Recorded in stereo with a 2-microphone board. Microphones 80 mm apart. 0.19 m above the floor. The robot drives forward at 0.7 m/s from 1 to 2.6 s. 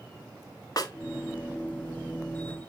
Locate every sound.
0.8 s a snare drum: 50° left (ahead or behind), 1.2 m